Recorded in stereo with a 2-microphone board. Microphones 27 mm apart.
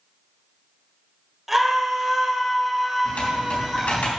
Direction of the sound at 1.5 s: 10° right (ahead or behind).